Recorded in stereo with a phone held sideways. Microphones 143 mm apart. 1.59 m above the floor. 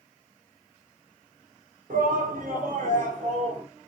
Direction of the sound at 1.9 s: 85° right.